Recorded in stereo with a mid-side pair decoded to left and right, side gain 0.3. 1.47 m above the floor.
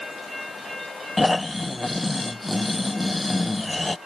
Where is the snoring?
25° left.